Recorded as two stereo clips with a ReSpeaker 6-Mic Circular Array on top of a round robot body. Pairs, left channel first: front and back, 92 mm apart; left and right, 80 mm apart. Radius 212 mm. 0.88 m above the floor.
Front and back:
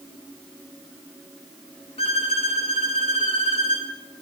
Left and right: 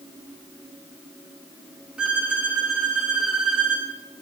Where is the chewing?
No chewing in this recording.